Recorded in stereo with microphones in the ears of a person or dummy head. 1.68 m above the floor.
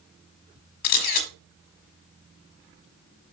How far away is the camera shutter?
About 1.4 m.